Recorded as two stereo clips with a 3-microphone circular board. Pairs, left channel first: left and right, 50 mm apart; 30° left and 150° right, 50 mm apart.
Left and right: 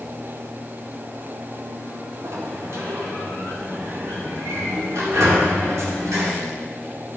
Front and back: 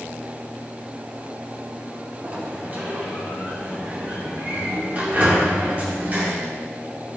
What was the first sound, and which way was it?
A sliding door, 90° right.